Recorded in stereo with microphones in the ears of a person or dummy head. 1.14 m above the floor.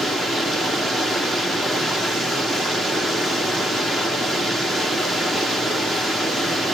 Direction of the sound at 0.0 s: Centre (ahead or behind).